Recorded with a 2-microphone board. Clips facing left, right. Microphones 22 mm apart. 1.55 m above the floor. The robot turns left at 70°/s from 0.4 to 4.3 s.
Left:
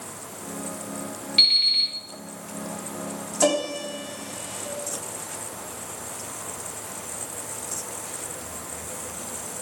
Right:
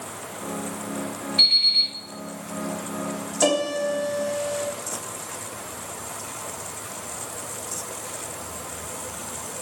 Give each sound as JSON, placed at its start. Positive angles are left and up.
{"t": 1.4, "sound": "an alarm clock", "azimuth_deg": 70, "distance_m": 2.0}
{"t": 3.4, "sound": "a piano", "azimuth_deg": -25, "distance_m": 1.2}